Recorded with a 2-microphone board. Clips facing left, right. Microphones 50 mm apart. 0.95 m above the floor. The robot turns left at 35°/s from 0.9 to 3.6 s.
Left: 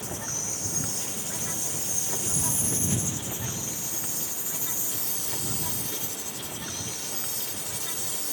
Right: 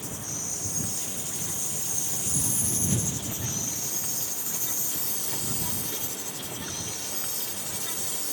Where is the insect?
105° left; by 8.3 s 15° left.